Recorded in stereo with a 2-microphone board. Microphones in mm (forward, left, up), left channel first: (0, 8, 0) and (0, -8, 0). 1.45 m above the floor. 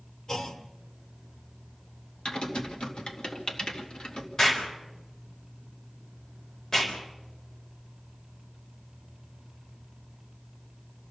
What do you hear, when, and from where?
0.3 s a clunk: 50° left (ahead or behind), 1.9 m
2.2 s typing on a keyboard: 60° left (ahead or behind), 2.5 m
4.4 s an explosion: 30° left (ahead or behind), 4 m